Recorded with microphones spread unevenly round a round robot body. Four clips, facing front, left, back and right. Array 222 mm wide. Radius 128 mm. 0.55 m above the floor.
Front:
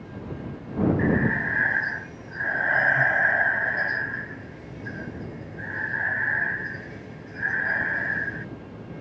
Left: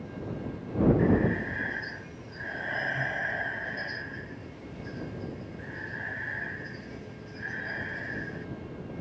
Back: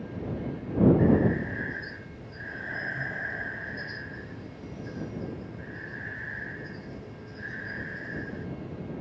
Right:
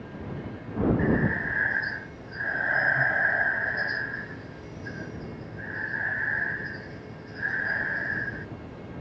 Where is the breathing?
20° right.